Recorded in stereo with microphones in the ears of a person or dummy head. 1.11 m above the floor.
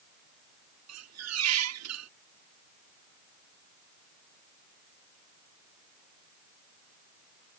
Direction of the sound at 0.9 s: 75° right (ahead or behind).